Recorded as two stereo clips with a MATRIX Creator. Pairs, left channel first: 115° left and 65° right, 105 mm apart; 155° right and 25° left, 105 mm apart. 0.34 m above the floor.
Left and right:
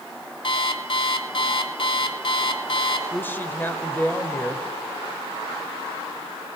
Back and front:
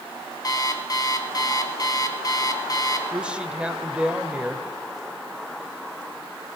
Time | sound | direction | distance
0.4 | an alarm clock | 150° left | 1.2 m
3.1 | a woman speaking | 85° left | 0.9 m